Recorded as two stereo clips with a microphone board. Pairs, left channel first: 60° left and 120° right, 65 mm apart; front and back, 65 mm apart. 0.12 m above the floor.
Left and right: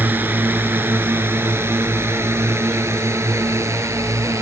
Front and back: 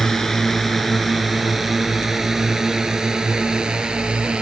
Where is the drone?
80° right; by 4.4 s 110° right.